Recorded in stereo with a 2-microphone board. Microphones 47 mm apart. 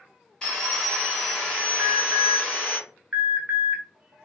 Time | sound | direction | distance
0.4 | sawing | 15° left (ahead or behind) | 1.4 m
1.8 | an alarm | 30° right (ahead or behind) | 0.8 m